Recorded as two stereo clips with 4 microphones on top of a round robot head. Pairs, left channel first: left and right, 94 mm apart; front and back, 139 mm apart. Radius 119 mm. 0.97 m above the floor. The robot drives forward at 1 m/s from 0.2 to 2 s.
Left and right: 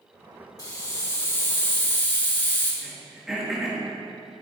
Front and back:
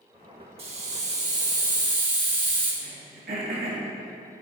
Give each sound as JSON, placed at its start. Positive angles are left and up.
{"t": 0.6, "sound": "a hiss", "azimuth_deg": 140, "distance_m": 1.7}
{"t": 2.8, "sound": "throat clearing", "azimuth_deg": -175, "distance_m": 3.0}